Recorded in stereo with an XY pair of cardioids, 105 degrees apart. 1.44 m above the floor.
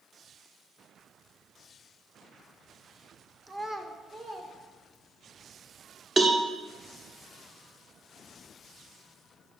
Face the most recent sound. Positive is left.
turn(degrees=-35)